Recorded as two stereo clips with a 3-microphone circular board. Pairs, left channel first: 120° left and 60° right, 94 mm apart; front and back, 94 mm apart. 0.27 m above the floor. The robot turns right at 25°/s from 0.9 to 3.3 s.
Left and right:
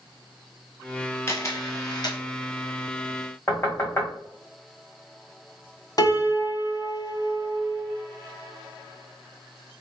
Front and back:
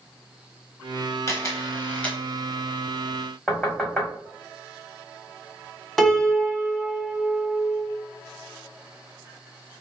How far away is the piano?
About 0.9 m.